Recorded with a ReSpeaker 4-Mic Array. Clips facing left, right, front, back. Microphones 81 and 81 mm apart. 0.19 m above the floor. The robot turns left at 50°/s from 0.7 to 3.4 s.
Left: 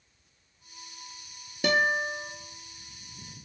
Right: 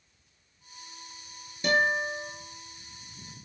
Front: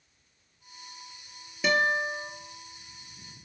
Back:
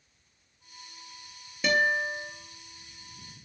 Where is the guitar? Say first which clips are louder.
Even, even; 85° left, 0.6 m; by 2.3 s 50° left, 0.6 m.